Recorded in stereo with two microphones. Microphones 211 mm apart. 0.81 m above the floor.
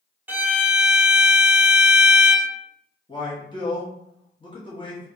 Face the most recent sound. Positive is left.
turn(degrees=25)  # may be behind; listen again after turning